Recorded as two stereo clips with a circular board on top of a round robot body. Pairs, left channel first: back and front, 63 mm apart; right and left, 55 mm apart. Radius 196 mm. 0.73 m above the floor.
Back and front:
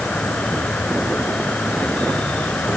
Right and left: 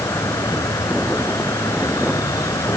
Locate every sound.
0.0 s an insect: 110° right